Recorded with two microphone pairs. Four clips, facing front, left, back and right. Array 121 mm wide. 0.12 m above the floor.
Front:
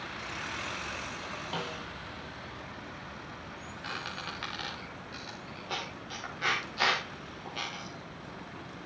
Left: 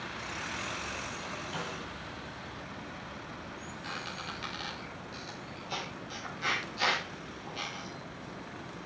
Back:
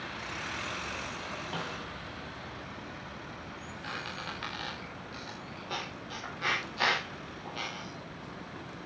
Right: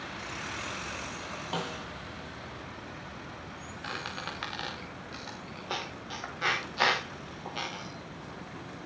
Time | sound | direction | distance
1.5 | a snare drum | 60° right | 2.5 m
3.8 | a squeak | 70° right | 6.5 m